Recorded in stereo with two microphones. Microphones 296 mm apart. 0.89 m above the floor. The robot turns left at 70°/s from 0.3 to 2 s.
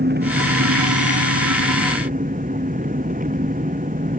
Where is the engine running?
35° right; by 4.2 s 150° right.